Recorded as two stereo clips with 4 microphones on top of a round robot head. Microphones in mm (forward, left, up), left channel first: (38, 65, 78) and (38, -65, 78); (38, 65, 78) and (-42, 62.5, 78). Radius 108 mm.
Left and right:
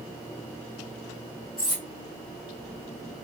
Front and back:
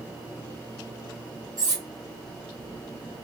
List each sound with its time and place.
1.6 s cutlery clinking: 155° left, 0.6 m